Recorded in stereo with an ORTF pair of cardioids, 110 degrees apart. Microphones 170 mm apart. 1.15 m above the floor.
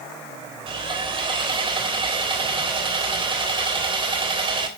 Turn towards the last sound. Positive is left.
turn(degrees=-30)